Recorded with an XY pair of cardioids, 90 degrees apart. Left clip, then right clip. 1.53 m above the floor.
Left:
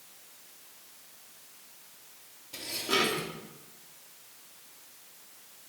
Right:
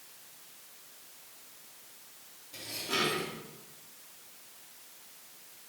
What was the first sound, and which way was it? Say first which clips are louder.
Dishes clattering: left 4 dB; 50° left.